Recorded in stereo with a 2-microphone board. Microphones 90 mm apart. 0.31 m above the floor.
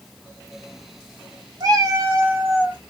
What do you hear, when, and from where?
1.6 s a cat meowing: 45° right (ahead or behind), 1.1 m; by 2.8 s 15° right (ahead or behind), 1.7 m